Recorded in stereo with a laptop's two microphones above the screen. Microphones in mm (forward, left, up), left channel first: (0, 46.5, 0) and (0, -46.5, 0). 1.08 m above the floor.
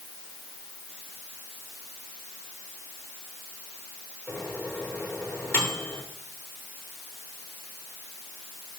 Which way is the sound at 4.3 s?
30° left (ahead or behind).